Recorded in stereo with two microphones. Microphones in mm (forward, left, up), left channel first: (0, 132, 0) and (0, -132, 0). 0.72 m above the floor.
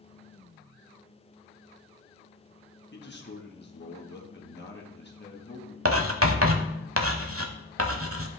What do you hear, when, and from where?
2.9 s a man speaking: 40° left (ahead or behind), 1.3 m
5.8 s writing: 55° right (ahead or behind), 0.9 m